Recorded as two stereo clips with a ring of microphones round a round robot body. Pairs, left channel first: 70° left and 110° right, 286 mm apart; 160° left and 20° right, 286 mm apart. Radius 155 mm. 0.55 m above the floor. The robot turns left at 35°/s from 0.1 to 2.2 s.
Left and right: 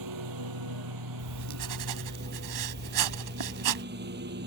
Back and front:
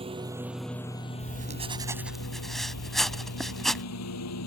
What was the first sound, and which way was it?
A lawn mower, 95° right.